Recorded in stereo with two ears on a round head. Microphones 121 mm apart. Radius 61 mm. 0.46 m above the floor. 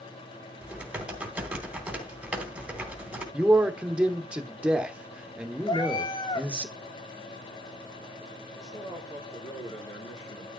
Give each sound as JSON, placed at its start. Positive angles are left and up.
{"t": 0.6, "sound": "typing on a keyboard", "side_deg": -10, "distance_m": 3.0}
{"t": 3.3, "sound": "a man speaking", "side_deg": -10, "distance_m": 1.1}
{"t": 5.7, "sound": "a cat meowing", "side_deg": 35, "distance_m": 1.2}
{"t": 8.5, "sound": "a man speaking", "side_deg": 25, "distance_m": 7.5}